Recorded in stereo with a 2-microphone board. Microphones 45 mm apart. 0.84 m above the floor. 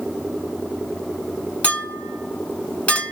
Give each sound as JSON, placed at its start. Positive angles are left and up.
{"t": 1.6, "sound": "a clink", "side_deg": 30, "distance_m": 1.7}